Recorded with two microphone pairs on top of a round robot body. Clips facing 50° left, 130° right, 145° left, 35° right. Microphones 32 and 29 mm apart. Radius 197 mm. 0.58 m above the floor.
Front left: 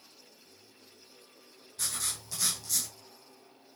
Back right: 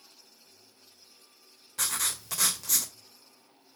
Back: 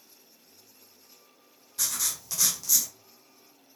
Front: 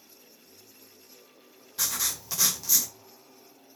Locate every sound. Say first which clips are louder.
1.8 s writing: back right 5 dB, front 1 dB; 110° right, 1.7 m